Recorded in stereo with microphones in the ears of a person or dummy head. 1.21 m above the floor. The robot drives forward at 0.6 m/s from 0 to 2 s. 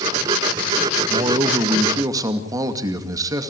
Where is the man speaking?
20° right (ahead or behind), 1.8 m; by 3.5 s 15° right (ahead or behind), 2.5 m.